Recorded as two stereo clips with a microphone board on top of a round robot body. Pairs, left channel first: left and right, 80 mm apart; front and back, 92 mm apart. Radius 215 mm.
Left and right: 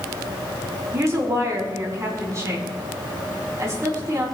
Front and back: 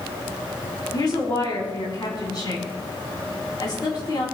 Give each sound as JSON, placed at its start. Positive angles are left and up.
{"t": 0.9, "sound": "a woman speaking", "azimuth_deg": -40, "distance_m": 4.5}